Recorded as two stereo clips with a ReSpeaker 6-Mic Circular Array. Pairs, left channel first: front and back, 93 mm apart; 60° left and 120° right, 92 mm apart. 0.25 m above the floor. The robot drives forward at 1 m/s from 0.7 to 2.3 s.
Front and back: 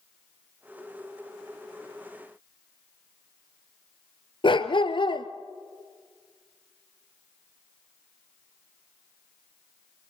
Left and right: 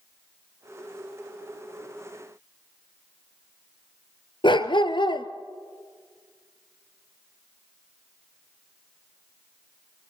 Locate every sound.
4.4 s a dog barking: 30° left, 1.4 m